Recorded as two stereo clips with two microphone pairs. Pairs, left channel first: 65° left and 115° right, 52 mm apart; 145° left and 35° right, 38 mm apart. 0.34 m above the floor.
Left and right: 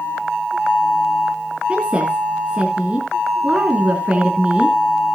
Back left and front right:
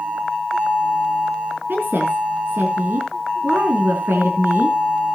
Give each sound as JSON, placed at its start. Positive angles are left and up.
{"t": 1.7, "sound": "a woman speaking", "azimuth_deg": -45, "distance_m": 3.5}